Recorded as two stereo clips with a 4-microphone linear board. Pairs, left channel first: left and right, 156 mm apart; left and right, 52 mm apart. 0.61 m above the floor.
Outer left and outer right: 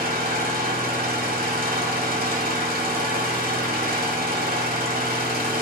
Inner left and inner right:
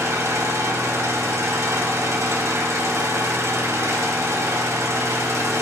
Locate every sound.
0.0 s an engine running: 80° right, 2.5 m